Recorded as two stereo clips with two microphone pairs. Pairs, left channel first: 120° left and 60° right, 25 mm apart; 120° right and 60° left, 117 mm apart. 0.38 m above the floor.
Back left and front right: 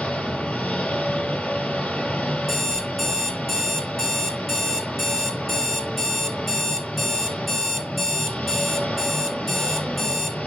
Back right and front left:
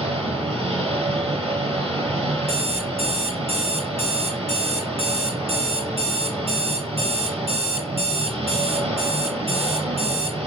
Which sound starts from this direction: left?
An engine running, at 0.0 s.